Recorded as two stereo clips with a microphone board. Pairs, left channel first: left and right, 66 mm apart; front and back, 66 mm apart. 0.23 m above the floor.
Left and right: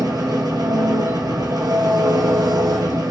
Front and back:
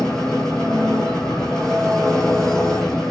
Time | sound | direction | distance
0.0 | an engine running | 85° right | 4 m